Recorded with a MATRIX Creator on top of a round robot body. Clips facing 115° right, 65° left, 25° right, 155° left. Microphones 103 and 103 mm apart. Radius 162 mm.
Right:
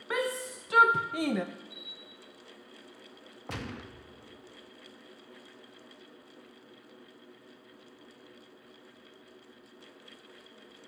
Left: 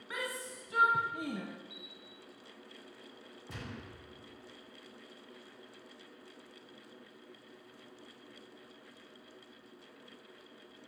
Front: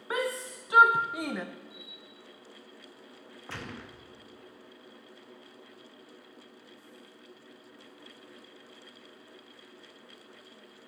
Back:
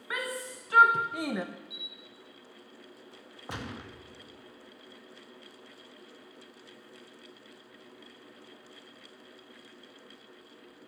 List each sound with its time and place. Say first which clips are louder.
0.1 s a shout: right 9 dB, front 5 dB; 80° right, 1.4 m; by 1.4 s 125° right, 0.8 m
1.7 s a camera shutter: right 2 dB, even; 140° left, 5.5 m
3.5 s a gunshot: right 6 dB, back 2 dB; 130° right, 2.5 m